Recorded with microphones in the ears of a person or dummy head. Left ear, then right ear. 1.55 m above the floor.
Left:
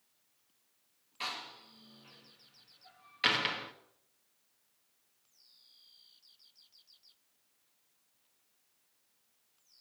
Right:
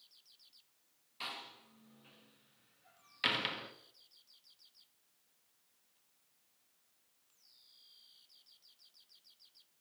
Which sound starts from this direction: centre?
A door slam, at 1.2 s.